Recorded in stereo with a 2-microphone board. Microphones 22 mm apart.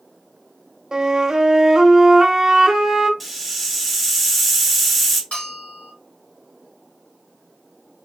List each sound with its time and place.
0.9 s a flute: 30° right (ahead or behind), 0.8 m
3.2 s a hiss: centre (ahead or behind), 0.9 m
5.3 s a bell: 75° left (ahead or behind), 2.5 m